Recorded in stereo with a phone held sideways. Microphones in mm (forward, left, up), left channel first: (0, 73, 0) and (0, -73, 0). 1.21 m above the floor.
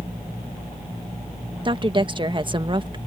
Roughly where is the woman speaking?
Right.